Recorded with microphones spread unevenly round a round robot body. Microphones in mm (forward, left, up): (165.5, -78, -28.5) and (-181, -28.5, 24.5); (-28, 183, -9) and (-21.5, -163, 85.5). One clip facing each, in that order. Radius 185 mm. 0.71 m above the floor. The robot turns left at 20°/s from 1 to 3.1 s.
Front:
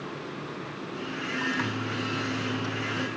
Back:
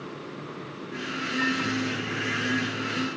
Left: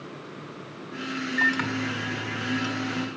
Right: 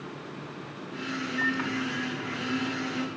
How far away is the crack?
No crack in this recording.